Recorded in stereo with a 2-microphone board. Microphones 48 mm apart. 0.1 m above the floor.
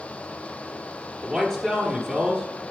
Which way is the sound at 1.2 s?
5° left (ahead or behind).